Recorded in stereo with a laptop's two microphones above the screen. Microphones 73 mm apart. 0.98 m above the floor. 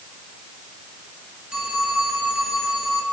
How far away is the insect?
No insect in this recording.